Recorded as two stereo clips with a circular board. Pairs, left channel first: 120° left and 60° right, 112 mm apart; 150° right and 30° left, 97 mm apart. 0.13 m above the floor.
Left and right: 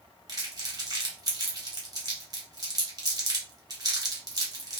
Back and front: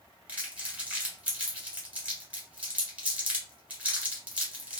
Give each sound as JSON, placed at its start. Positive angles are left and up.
{"t": 0.3, "sound": "crumpling", "azimuth_deg": -35, "distance_m": 1.5}